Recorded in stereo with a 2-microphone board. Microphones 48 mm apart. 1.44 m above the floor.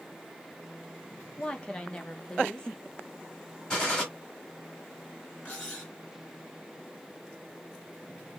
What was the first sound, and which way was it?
A woman speaking, 20° left (ahead or behind).